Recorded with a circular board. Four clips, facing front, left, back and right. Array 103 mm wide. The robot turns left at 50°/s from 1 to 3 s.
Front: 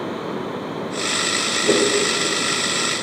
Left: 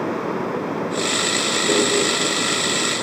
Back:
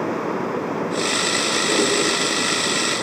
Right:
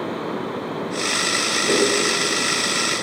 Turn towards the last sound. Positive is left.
turn(degrees=-70)